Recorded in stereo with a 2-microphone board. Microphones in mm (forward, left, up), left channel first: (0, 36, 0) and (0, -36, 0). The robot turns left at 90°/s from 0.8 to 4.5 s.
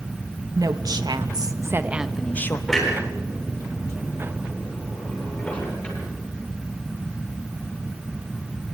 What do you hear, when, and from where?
0.6 s a woman speaking: 60° right, 1.1 m; by 2.6 s 140° left, 1.1 m
2.7 s a clunk: centre (ahead or behind), 9.5 m; by 8.7 s 20° left (ahead or behind), 9.5 m